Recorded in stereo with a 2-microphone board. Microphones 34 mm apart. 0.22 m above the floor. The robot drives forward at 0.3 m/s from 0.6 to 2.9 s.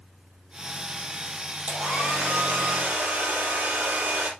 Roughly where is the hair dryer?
Right.